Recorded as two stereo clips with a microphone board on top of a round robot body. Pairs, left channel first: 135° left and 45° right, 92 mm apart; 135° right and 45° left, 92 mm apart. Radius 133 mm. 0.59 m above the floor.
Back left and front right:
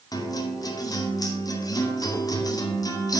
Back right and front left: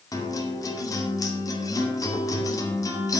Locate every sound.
0.1 s a guitar: 175° left, 2.5 m